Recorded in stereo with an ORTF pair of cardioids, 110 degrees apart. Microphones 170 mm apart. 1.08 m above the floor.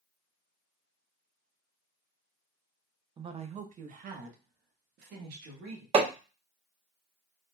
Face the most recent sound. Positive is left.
turn(degrees=-35)